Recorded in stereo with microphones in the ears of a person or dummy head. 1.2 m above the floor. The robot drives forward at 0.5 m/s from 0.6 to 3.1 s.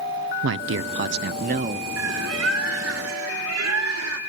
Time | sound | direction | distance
0.4 | a man speaking | 65° right (ahead or behind) | 0.5 m
2.0 | a bird | 85° right | 2.5 m